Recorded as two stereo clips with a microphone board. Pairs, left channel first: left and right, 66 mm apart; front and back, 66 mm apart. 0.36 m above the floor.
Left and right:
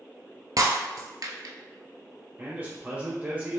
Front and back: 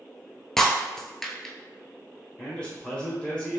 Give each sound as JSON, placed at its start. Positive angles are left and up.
{"t": 0.6, "sound": "breaking glass", "azimuth_deg": -85, "distance_m": 0.6}
{"t": 2.4, "sound": "a man speaking", "azimuth_deg": -60, "distance_m": 1.3}